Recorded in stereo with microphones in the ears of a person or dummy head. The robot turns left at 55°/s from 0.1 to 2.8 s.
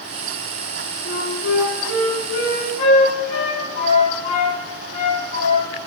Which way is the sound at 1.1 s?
45° left (ahead or behind).